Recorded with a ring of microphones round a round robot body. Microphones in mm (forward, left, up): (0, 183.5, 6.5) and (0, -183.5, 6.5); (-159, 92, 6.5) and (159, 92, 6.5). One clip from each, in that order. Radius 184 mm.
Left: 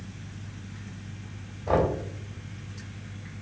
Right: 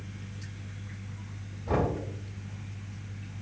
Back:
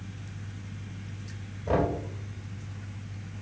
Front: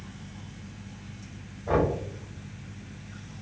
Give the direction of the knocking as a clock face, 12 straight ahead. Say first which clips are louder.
Left 5 dB, front 2 dB; 8 o'clock.